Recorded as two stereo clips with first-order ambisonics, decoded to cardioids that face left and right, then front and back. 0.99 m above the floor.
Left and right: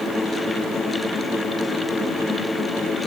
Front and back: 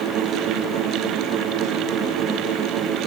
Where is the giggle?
No giggle in this recording.